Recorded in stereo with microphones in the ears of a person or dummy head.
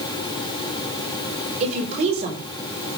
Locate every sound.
1.6 s a woman speaking: 40° right (ahead or behind), 5 m